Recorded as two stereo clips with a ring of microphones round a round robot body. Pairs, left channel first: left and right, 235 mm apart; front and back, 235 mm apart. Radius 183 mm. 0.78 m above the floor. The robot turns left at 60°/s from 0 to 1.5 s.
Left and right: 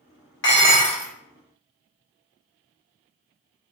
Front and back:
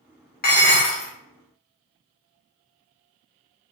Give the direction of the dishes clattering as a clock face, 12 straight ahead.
10 o'clock.